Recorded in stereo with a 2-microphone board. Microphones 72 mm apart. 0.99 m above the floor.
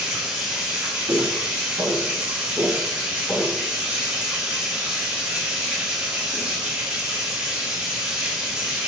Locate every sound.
0.0 s running water: 15° right (ahead or behind), 1.7 m
1.1 s footsteps: 65° right (ahead or behind), 2.5 m; by 3.6 s 5° left (ahead or behind), 2 m